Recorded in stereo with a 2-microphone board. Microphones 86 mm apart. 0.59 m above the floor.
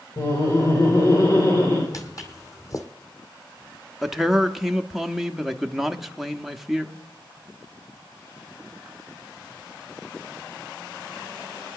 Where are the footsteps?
40° left (ahead or behind), 1.1 m.